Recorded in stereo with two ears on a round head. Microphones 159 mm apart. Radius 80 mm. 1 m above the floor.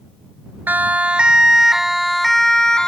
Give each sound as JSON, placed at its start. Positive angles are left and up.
{"t": 0.7, "sound": "a siren", "side_deg": -10}